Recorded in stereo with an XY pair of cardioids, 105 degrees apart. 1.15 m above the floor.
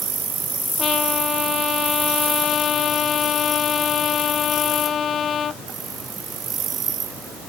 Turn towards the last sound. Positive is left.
turn(degrees=50)